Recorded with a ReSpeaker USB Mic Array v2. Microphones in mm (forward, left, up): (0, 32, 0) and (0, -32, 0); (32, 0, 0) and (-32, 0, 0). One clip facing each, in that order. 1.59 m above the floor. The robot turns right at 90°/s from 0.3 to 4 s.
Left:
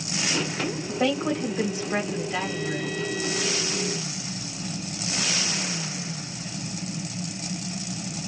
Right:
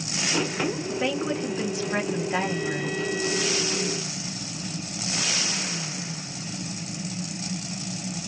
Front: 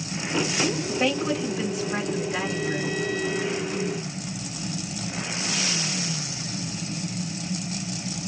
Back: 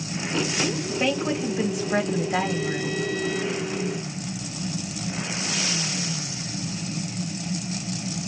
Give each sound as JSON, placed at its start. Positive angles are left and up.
{"t": 0.9, "sound": "a woman speaking", "azimuth_deg": 75, "distance_m": 1.7}